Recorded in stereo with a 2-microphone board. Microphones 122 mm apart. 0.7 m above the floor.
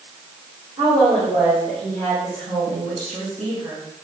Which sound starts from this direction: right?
A woman speaking, at 0.8 s.